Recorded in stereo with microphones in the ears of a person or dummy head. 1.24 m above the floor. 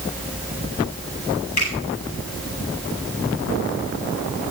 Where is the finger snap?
40° left (ahead or behind), 6.5 m.